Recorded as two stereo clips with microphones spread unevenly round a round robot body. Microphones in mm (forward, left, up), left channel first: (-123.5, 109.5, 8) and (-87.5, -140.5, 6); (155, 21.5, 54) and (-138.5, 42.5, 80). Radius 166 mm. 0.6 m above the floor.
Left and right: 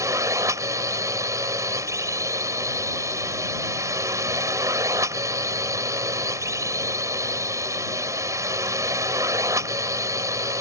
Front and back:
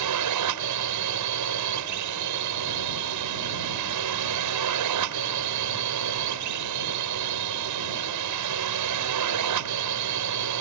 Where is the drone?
160° right.